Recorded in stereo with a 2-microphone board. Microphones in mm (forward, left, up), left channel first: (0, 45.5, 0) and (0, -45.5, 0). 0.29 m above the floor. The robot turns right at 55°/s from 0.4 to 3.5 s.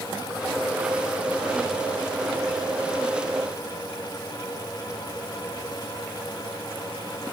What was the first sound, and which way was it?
Only background noise.